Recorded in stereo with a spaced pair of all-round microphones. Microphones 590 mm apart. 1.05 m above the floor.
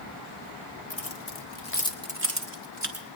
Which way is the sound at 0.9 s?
75° left (ahead or behind).